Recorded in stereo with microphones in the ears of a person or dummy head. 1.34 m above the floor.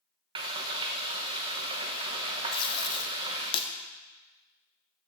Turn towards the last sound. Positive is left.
turn(degrees=25)  # may be behind; listen again after turning